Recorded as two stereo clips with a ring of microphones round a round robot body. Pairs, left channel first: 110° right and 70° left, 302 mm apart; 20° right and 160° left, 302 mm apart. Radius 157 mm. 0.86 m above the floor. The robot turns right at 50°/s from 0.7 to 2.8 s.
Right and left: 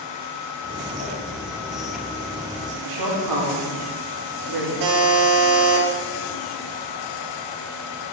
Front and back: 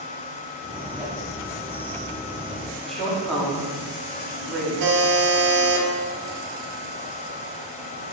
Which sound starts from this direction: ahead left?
A woman speaking, at 2.8 s.